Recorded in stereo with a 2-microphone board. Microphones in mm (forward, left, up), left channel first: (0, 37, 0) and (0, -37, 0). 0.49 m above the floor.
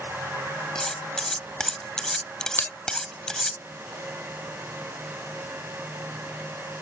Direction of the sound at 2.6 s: 30° left (ahead or behind).